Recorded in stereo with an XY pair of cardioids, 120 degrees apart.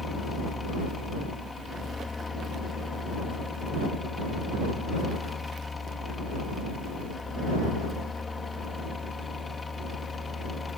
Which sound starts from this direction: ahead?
A fan, at 0.0 s.